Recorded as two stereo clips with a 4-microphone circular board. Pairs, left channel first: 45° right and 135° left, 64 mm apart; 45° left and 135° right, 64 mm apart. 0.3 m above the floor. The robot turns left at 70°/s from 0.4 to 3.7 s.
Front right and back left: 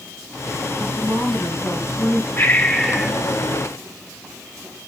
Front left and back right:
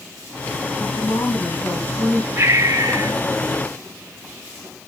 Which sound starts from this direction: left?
A woman speaking, at 0.8 s.